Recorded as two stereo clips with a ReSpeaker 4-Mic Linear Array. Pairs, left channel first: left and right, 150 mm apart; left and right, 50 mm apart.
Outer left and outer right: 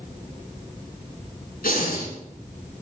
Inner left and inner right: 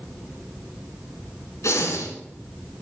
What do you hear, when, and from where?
1.6 s breathing: 75° left (ahead or behind), 2.5 m